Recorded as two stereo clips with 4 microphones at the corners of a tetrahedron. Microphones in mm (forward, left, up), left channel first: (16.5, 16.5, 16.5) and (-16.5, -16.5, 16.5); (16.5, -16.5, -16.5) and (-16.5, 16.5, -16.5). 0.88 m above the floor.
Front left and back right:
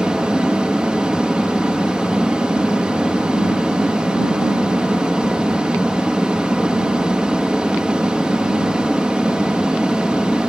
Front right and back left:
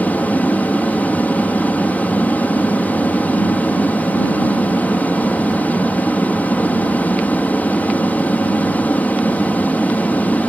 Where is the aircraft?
75° right.